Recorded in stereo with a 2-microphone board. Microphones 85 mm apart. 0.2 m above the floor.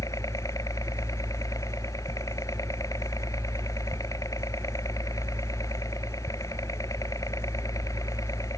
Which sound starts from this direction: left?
A helicopter, at 0.0 s.